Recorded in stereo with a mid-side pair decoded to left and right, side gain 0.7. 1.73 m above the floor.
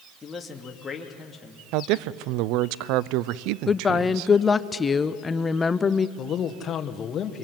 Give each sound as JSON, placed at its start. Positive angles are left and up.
{"t": 0.2, "sound": "a man speaking", "azimuth_deg": 15, "distance_m": 2.5}
{"t": 1.7, "sound": "a man speaking", "azimuth_deg": -65, "distance_m": 0.6}
{"t": 3.7, "sound": "a woman speaking", "azimuth_deg": 20, "distance_m": 0.8}
{"t": 6.2, "sound": "a man speaking", "azimuth_deg": 35, "distance_m": 1.9}